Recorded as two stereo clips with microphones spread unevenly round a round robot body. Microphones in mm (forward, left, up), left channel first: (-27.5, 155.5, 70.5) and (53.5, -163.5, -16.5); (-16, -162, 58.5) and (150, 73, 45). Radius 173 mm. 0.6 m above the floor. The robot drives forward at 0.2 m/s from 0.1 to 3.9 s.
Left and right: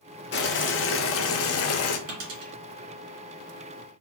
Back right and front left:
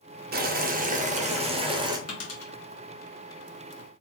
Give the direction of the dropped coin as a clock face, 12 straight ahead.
3 o'clock.